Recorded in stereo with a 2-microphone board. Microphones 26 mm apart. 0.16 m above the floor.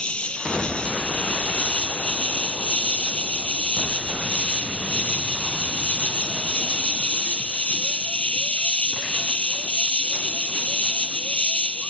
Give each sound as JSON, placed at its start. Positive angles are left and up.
{"t": 0.0, "sound": "an insect", "side_deg": 50}